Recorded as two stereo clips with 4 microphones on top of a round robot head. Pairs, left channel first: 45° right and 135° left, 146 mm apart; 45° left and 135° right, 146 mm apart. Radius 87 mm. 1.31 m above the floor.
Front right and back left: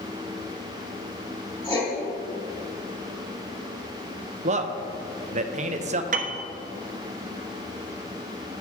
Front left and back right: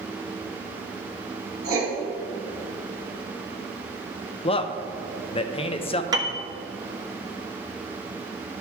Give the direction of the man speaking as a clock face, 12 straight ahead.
9 o'clock.